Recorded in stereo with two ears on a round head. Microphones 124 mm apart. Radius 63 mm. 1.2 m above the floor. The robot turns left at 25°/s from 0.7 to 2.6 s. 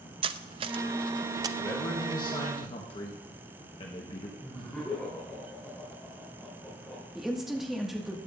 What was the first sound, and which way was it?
Cutlery clinking, 40° right (ahead or behind).